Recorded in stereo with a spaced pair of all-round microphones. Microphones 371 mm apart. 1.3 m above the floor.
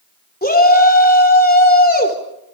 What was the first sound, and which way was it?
A shout, 25° left (ahead or behind).